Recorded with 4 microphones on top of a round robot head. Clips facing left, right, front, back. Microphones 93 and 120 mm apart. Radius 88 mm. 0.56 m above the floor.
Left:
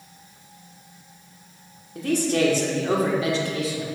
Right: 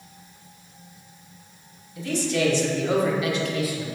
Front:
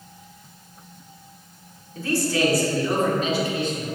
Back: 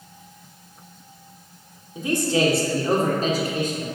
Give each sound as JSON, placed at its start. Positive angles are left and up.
{"t": 1.9, "sound": "a man speaking", "azimuth_deg": 110, "distance_m": 2.0}